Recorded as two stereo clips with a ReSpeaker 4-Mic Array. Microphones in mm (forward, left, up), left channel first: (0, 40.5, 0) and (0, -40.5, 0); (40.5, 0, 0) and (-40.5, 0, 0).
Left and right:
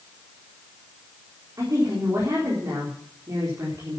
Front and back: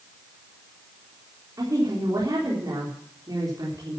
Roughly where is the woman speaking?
Behind right.